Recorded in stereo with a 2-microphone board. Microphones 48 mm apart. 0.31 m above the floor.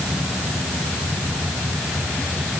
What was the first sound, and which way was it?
Only background noise.